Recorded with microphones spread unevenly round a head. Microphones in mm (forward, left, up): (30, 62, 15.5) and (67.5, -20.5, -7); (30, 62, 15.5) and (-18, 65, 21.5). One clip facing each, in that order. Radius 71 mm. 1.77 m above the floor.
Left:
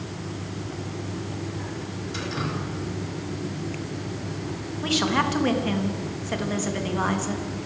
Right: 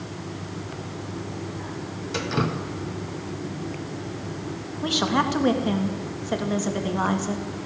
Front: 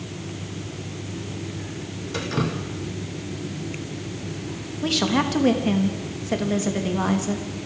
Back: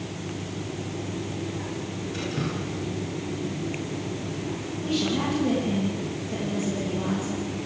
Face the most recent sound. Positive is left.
turn(degrees=5)